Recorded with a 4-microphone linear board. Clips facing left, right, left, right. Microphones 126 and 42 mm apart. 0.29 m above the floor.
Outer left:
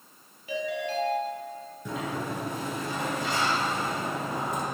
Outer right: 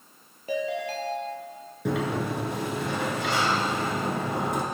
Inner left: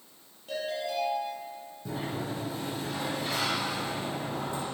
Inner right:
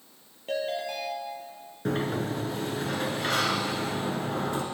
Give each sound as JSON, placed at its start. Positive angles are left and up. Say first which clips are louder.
{"t": 0.5, "sound": "a ringtone", "louder": "outer right 2 dB, inner right 2 dB", "side_deg": -40, "distance_m": 3.0}
{"t": 1.9, "sound": "a sliding door", "louder": "outer right 6 dB, inner right 6 dB", "side_deg": -70, "distance_m": 1.7}